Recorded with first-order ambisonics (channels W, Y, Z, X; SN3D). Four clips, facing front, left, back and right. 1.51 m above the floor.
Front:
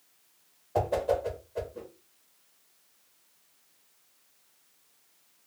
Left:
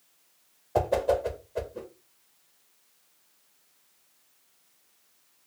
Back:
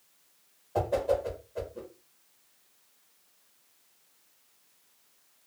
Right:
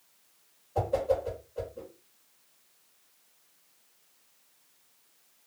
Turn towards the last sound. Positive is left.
turn(degrees=80)